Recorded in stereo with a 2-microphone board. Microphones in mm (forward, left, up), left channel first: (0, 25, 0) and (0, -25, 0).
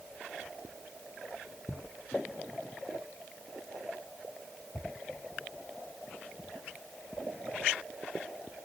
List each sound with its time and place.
Only background noise.